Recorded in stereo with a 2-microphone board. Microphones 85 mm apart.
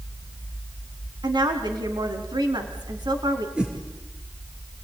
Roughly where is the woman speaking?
Right.